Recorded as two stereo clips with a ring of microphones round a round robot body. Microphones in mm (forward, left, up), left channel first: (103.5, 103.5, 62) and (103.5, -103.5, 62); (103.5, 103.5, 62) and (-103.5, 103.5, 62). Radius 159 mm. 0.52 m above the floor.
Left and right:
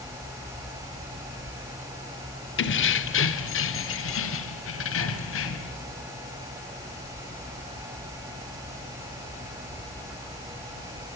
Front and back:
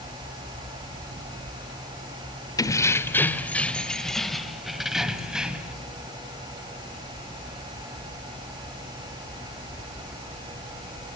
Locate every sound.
2.6 s keys jangling: 75° left, 1.7 m; by 5.7 s 95° left, 3.5 m